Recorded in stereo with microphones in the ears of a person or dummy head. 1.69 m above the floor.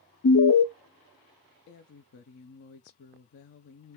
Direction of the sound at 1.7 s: 45° left (ahead or behind).